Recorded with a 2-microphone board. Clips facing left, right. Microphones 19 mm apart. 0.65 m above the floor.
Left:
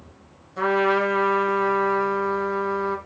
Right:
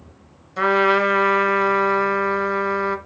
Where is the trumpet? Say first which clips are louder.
Right 4 dB; 50° right (ahead or behind), 1.6 m.